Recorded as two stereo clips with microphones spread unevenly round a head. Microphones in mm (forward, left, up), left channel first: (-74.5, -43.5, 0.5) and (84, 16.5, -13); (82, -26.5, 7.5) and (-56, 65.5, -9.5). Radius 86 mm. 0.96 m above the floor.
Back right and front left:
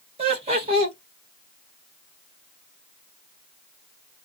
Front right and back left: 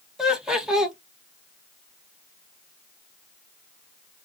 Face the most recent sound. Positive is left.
turn(degrees=65)